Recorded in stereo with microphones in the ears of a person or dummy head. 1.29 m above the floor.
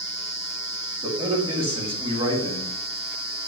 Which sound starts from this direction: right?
A man speaking, at 1.0 s.